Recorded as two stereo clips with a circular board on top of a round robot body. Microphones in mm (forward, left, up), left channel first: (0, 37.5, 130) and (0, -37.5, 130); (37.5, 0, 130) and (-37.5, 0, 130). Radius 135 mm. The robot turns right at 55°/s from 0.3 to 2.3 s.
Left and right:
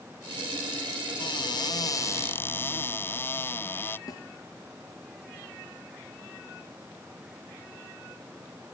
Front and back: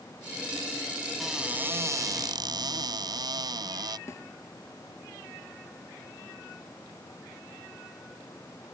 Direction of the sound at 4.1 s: 50° left.